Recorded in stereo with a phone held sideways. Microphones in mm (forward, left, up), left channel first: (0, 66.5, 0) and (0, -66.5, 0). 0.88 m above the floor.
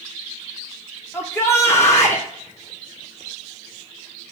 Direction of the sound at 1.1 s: 20° left (ahead or behind).